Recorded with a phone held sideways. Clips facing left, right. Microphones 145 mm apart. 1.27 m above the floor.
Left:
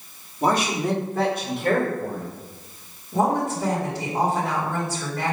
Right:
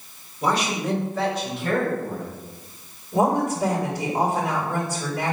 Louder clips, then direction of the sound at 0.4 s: Left 2 dB; 45° left (ahead or behind).